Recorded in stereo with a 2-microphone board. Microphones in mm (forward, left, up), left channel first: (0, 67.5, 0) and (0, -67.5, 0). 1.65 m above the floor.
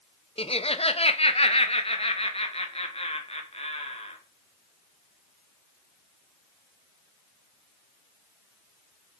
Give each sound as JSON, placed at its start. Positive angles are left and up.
{"t": 0.4, "sound": "laughter", "side_deg": 45, "distance_m": 1.2}